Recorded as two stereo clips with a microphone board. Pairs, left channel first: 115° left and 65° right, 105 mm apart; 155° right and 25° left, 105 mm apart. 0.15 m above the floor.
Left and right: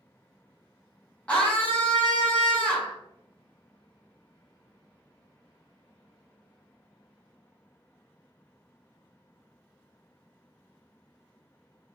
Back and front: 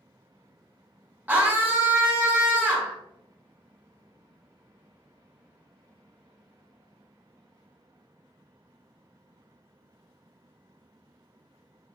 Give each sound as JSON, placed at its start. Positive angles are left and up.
{"t": 1.3, "sound": "a scream", "azimuth_deg": 60, "distance_m": 1.4}